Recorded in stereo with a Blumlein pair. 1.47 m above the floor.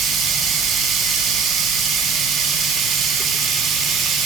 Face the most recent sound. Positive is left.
turn(degrees=-15)